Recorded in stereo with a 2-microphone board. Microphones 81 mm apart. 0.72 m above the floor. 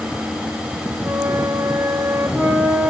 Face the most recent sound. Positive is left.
turn(degrees=-35)  # may be behind; listen again after turning